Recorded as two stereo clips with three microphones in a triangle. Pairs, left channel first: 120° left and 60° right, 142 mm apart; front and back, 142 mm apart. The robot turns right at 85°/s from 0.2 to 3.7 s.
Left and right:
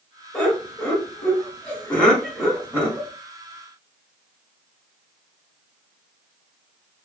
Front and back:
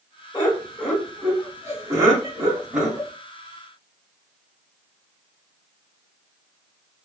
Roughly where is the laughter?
Ahead left.